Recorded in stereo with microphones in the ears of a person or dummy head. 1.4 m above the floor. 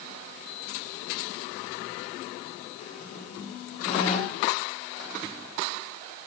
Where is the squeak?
45° left (ahead or behind), 6 m.